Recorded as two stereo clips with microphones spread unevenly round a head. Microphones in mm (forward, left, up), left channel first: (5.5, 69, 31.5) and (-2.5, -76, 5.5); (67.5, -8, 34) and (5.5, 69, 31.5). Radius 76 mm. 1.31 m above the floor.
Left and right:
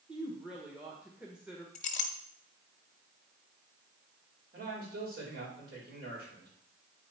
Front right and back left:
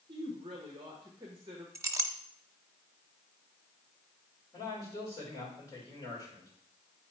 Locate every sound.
0.1 s a woman speaking: 175° right, 1.1 m
1.8 s a clink: 70° left, 0.9 m
4.5 s a man speaking: 120° right, 4.5 m